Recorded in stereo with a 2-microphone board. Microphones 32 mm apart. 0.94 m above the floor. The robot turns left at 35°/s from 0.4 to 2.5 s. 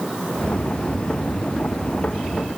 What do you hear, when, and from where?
Only background noise.